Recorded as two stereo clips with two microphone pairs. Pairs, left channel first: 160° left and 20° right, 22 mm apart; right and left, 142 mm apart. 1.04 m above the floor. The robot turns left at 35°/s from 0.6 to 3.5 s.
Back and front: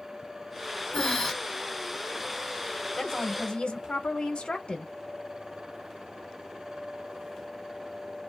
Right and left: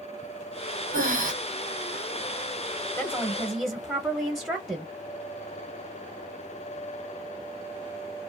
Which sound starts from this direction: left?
Breathing, at 0.9 s.